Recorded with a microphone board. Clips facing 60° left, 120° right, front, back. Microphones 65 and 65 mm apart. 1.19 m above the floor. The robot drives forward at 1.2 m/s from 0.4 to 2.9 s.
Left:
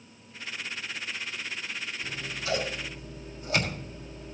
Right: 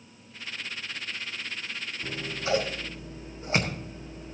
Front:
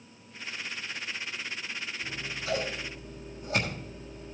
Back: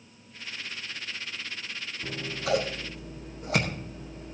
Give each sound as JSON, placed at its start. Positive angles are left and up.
{"t": 2.0, "sound": "scissors", "azimuth_deg": -175, "distance_m": 0.8}